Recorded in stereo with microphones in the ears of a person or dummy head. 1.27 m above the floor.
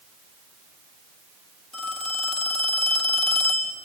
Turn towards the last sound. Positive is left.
turn(degrees=5)  # may be behind; listen again after turning